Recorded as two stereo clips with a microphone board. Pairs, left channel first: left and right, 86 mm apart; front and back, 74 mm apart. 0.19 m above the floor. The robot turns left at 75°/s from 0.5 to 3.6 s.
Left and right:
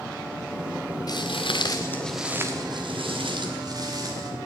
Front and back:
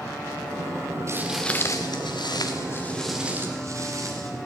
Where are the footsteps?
130° left, 1.0 m; by 4.3 s 135° right, 3.5 m.